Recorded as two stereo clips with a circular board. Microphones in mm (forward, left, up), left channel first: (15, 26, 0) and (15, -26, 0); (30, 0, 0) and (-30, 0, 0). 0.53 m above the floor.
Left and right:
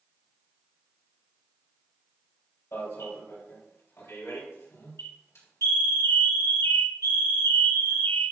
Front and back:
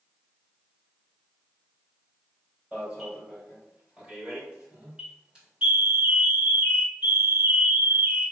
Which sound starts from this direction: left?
An alarm, at 2.7 s.